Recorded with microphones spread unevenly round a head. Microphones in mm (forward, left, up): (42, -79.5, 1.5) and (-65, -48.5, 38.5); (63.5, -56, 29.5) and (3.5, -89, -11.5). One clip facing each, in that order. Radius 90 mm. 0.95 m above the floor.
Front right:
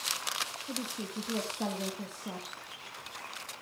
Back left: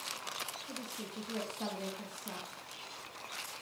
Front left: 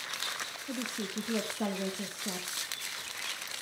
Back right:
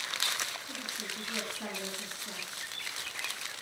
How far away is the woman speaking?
About 1.6 m.